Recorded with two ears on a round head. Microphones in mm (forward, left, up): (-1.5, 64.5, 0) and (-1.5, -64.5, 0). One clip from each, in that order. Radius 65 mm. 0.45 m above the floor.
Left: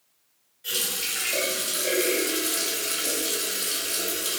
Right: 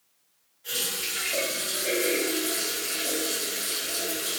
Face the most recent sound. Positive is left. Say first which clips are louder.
# left 2 dB
turn(degrees=40)  # may be behind; listen again after turning